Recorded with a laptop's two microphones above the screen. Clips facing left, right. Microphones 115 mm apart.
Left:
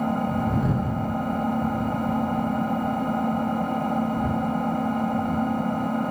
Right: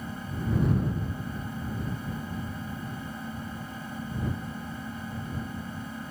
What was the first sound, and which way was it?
An engine running, 65° left (ahead or behind).